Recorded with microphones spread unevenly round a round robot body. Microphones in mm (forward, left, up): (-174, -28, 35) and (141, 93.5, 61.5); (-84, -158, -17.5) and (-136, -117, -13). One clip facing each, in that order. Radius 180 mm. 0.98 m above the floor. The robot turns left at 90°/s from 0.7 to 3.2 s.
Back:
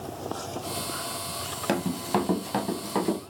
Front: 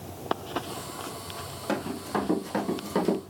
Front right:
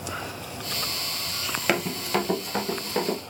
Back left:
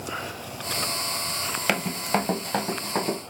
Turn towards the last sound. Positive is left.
turn(degrees=105)